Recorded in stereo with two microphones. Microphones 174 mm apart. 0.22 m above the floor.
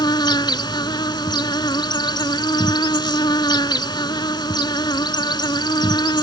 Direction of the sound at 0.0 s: 25° left (ahead or behind).